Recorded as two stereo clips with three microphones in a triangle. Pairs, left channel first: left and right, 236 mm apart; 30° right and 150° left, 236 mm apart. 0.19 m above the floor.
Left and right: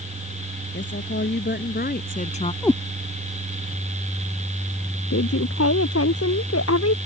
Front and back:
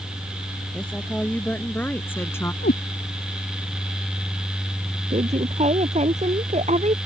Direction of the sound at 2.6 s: 10° left.